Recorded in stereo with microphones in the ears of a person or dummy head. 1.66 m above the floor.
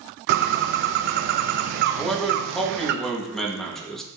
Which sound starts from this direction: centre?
A man speaking, at 1.9 s.